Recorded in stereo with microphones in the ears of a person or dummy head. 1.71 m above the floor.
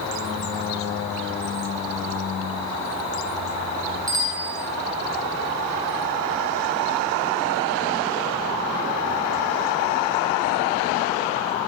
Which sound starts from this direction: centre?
A bicycle bell, at 4.1 s.